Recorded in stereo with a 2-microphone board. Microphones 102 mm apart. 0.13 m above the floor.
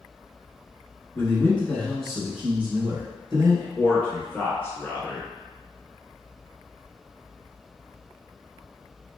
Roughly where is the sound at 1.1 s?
Left.